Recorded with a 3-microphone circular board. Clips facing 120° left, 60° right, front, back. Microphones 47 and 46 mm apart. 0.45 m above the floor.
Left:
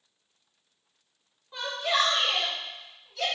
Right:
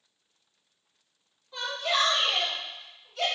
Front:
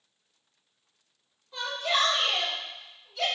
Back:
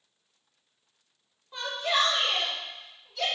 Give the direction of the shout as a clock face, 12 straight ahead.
7 o'clock.